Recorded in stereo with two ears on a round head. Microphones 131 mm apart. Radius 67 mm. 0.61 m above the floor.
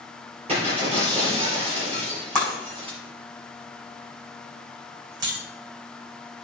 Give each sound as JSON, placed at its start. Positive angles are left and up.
{"t": 0.5, "sound": "breaking glass", "side_deg": -40, "distance_m": 5.0}
{"t": 2.4, "sound": "breaking glass", "side_deg": -25, "distance_m": 5.0}